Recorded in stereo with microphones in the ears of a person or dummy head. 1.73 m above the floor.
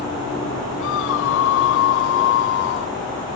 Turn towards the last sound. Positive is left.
turn(degrees=70)  # may be behind; listen again after turning